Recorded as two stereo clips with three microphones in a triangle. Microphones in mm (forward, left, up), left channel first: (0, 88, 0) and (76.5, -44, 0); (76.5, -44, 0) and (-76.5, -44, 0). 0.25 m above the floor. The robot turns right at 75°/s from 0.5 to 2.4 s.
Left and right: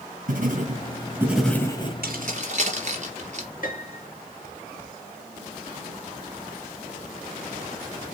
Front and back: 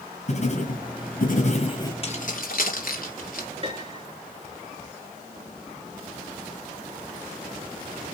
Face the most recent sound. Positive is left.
turn(degrees=135)